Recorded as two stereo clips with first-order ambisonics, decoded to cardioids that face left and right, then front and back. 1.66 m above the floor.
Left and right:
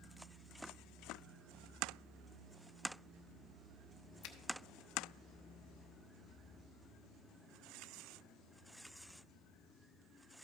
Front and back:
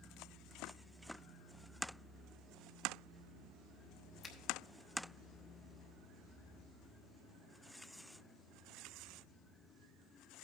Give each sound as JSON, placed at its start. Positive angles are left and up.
{"t": 4.2, "sound": "a finger snap", "azimuth_deg": 65, "distance_m": 0.9}